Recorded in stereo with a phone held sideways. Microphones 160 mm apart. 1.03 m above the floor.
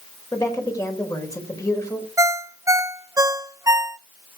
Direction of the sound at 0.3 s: 20° left (ahead or behind).